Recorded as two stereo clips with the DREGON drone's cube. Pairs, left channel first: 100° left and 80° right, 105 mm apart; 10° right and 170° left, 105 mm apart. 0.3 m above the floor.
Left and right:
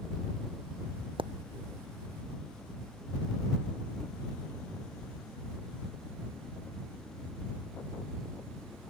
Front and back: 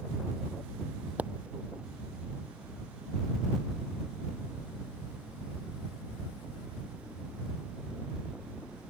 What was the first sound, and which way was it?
A pop, 115° right.